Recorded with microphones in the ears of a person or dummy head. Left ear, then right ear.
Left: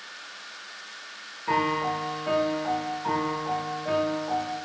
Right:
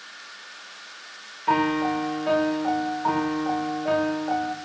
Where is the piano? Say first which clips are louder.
Right 3 dB; 30° right (ahead or behind), 1.3 m.